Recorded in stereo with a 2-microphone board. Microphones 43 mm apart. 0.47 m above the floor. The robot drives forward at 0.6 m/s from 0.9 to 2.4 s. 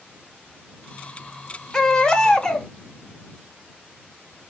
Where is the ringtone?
I don't hear a ringtone.